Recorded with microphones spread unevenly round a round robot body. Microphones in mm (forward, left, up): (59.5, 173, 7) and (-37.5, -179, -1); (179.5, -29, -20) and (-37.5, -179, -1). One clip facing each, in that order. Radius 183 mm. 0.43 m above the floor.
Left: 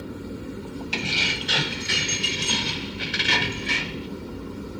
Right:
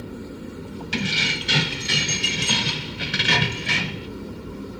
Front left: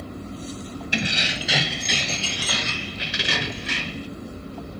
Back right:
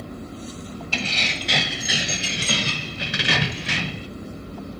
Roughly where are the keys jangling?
Ahead right.